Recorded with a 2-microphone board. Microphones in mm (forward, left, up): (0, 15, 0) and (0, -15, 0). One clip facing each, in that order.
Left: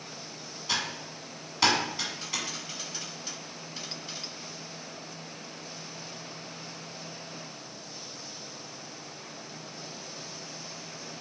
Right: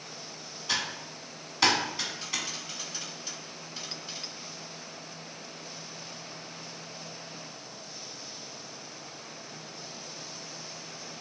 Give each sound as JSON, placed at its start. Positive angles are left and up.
{"t": 0.7, "sound": "typing on a keyboard", "side_deg": 0, "distance_m": 1.3}